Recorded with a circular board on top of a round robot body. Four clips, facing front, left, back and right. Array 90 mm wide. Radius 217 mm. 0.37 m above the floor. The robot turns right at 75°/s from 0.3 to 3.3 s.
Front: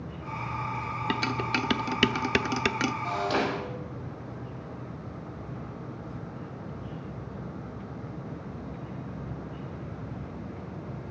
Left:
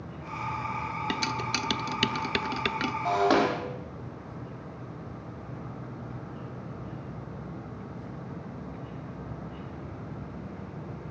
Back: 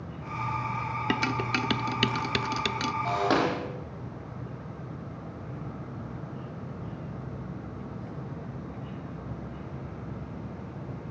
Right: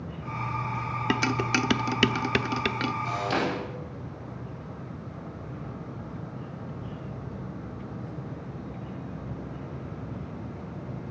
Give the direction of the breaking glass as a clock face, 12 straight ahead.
8 o'clock.